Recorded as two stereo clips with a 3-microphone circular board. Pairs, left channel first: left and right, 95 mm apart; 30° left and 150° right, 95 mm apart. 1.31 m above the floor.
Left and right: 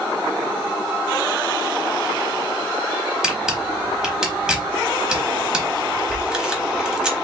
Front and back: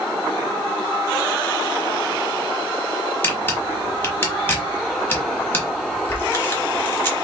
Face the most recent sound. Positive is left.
turn(degrees=-15)